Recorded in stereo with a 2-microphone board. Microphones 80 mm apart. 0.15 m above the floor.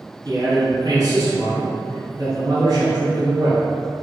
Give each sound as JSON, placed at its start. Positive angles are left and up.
{"t": 0.2, "sound": "a man speaking", "side_deg": -40, "distance_m": 1.6}